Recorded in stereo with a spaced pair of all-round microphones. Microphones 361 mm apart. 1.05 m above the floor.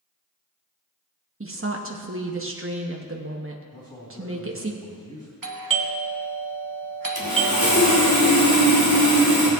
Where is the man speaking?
15° left (ahead or behind), 3 m.